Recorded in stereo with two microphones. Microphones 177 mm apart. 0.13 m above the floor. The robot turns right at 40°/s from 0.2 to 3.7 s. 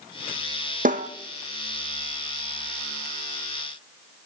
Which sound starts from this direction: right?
A snare drum, at 0.8 s.